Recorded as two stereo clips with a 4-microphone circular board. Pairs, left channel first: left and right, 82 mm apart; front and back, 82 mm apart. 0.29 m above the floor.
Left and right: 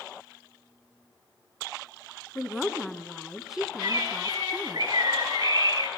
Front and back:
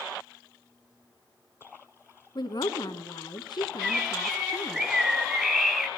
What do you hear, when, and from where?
2.4 s a woman speaking: 5° right, 2.5 m
3.8 s a bird: 95° right, 1.4 m